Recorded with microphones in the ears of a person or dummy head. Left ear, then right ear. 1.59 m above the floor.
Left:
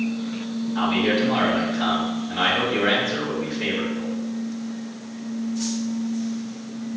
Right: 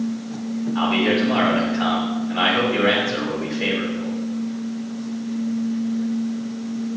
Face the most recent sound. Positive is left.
turn(degrees=-10)  # may be behind; listen again after turning